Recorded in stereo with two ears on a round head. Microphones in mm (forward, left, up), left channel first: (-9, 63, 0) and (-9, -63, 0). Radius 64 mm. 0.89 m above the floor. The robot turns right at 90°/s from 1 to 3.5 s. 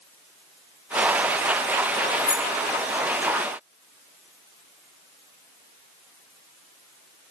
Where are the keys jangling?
85° left, 7 m; by 2.5 s 60° left (ahead or behind), 7 m.